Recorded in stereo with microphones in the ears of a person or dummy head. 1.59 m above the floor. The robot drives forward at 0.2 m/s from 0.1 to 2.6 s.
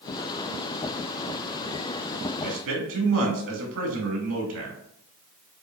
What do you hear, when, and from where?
2.4 s a man speaking: 70° right (ahead or behind), 0.9 m